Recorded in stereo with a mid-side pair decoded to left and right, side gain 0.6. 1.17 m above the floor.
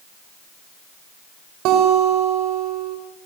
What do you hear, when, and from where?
1.6 s a guitar: 70° right, 5 m